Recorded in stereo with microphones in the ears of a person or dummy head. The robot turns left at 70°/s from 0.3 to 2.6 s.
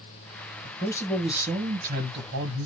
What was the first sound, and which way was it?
A man speaking, 40° left.